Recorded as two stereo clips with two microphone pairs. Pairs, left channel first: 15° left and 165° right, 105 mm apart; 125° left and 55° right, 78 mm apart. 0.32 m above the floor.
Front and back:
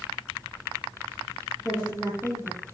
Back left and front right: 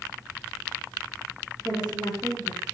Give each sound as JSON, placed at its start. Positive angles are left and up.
{"t": 1.6, "sound": "a woman speaking", "azimuth_deg": -70, "distance_m": 6.5}